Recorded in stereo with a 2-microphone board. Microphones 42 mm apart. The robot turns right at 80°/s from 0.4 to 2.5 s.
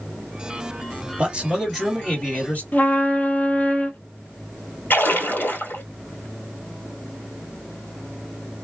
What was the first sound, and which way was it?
A man speaking, 45° right.